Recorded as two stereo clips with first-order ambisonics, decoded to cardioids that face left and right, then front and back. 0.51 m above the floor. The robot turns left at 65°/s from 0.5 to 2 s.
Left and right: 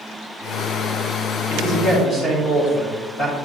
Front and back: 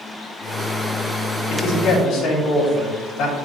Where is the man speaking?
55° left, 3 m; by 3.4 s 25° left, 3 m.